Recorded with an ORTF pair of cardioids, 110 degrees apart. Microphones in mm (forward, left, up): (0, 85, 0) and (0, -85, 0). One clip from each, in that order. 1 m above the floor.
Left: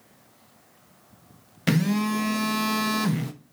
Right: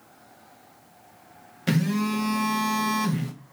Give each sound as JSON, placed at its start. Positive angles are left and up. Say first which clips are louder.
{"t": 1.7, "sound": "a phone buzzing", "louder": "left 1 dB", "azimuth_deg": 25, "distance_m": 0.8}